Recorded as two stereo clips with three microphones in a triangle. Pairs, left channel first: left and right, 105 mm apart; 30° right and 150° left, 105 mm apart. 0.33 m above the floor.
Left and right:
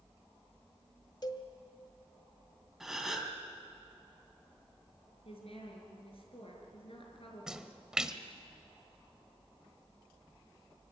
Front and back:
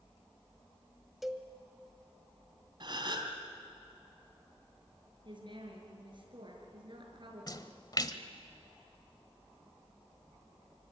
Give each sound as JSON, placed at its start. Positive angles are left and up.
{"t": 1.2, "sound": "a cowbell", "azimuth_deg": 60, "distance_m": 1.8}
{"t": 2.8, "sound": "a gasp", "azimuth_deg": -175, "distance_m": 2.5}
{"t": 5.2, "sound": "a woman speaking", "azimuth_deg": 110, "distance_m": 6.0}
{"t": 7.5, "sound": "a splash", "azimuth_deg": -10, "distance_m": 1.3}